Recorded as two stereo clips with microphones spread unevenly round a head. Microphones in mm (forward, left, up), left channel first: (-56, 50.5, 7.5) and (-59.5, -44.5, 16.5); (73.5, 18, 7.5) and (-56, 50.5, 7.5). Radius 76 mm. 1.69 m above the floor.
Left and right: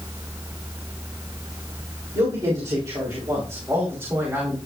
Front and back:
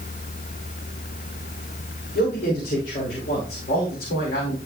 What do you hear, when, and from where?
2.1 s a man speaking: 35° right, 3.5 m; by 4.6 s 15° right, 2.5 m